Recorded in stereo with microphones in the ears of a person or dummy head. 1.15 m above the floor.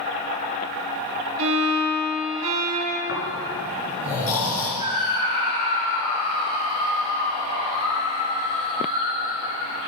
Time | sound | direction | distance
1.4 | a violin | 75° right (ahead or behind) | 2.5 m
3.1 | snoring | 65° left (ahead or behind) | 4.5 m
4.8 | a scream | 25° right (ahead or behind) | 3.5 m